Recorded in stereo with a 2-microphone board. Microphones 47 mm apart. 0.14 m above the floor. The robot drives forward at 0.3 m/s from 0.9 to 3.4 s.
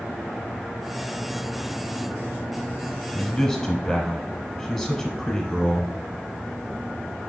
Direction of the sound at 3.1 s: 10° left (ahead or behind).